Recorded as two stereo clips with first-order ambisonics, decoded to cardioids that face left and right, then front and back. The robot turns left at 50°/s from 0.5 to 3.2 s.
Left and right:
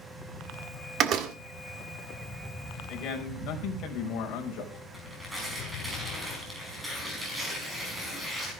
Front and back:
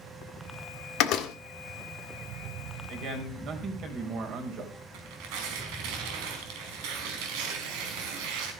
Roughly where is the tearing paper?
Behind.